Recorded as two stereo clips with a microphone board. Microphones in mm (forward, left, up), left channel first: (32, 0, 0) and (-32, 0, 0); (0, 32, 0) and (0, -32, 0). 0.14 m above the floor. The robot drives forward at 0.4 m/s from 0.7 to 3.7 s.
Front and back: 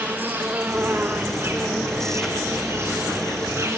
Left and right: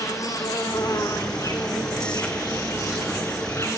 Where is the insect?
120° left, 3.5 m; by 3.8 s 135° left, 4 m.